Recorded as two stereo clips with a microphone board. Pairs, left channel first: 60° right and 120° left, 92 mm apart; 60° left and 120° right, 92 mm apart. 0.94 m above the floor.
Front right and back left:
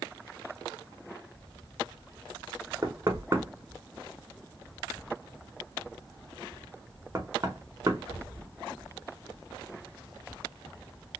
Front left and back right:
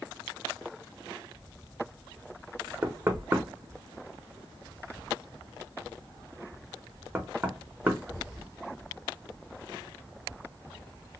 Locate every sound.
2.8 s knocking: 175° left, 0.8 m